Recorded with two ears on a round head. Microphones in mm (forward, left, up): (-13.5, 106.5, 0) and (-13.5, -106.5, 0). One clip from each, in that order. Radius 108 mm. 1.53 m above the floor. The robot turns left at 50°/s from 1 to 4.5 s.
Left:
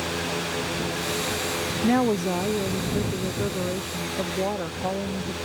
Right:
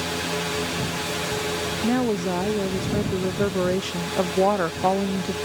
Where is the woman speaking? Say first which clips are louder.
Left 2 dB; 20° left; by 5.3 s 110° right.